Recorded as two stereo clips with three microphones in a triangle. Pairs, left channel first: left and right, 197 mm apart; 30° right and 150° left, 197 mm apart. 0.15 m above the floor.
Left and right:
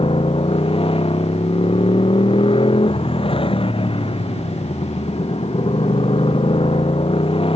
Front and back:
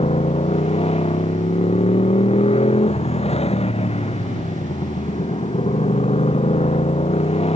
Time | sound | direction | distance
0.0 | a motorcycle | 30° left | ?